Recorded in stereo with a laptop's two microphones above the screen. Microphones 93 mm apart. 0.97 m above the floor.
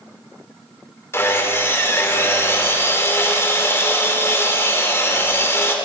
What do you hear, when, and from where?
1.1 s sawing: 30° left (ahead or behind), 4 m